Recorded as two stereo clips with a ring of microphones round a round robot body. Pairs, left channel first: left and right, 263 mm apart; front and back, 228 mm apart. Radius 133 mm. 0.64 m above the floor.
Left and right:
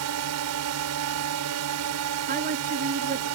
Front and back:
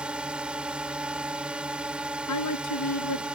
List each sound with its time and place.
0.0 s a drone: 95° right
2.3 s a woman speaking: 30° right